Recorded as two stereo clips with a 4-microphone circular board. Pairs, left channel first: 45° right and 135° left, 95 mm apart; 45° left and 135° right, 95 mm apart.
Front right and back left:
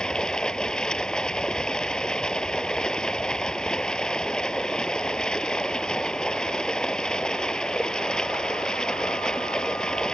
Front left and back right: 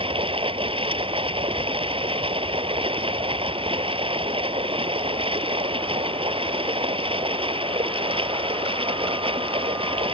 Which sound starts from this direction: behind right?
Running water, at 0.0 s.